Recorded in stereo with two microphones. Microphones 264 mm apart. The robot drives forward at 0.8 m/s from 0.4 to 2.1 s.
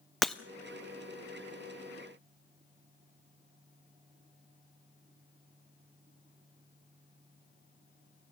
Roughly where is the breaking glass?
Centre.